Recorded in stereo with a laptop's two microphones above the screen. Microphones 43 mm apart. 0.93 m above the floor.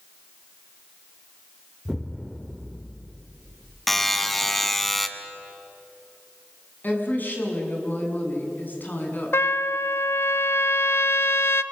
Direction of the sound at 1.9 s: Centre (ahead or behind).